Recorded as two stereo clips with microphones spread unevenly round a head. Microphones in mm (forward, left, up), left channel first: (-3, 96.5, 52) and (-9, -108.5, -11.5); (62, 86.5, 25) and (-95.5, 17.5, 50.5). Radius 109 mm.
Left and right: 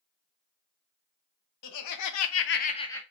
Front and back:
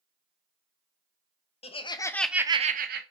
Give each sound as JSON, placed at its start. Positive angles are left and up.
{"t": 1.6, "sound": "laughter", "azimuth_deg": 75, "distance_m": 0.8}